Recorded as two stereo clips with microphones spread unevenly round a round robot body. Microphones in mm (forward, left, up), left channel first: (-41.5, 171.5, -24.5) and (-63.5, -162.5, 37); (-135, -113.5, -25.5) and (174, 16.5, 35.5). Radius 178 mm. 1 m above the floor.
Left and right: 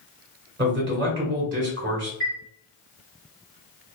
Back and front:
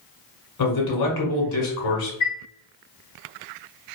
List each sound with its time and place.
0.6 s a man speaking: 155° right, 1.9 m
2.2 s a chime: 175° left, 1.8 m